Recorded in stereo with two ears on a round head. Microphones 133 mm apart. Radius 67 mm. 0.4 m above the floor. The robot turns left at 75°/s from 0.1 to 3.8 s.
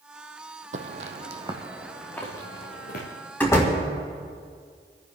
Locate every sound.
0.7 s footsteps: 50° right (ahead or behind), 1.0 m; by 3.1 s 70° left (ahead or behind), 3.5 m
3.4 s a door slam: 10° left (ahead or behind), 2 m; by 3.8 s 35° left (ahead or behind), 2 m